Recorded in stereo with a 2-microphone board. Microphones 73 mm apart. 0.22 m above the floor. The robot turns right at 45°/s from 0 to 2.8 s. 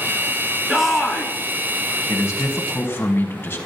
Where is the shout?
5° right (ahead or behind), 3.5 m; by 1.3 s 20° left (ahead or behind), 3.5 m.